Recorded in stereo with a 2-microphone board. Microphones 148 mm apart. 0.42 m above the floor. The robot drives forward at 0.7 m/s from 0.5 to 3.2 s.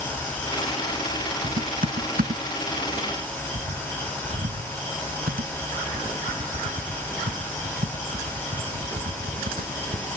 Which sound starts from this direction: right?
Typing on a keyboard, at 1.4 s.